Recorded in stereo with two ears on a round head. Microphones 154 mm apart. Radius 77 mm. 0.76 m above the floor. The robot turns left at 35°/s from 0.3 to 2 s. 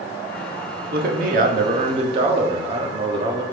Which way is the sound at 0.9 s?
105° right.